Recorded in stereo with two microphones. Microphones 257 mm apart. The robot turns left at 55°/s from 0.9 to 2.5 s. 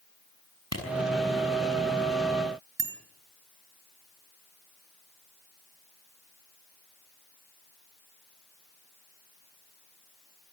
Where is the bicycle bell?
45° right (ahead or behind), 3.5 m.